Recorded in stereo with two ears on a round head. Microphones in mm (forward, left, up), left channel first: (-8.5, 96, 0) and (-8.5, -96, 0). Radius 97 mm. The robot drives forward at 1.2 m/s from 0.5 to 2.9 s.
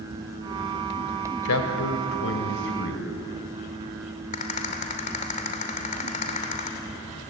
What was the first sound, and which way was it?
A man speaking, 80° left.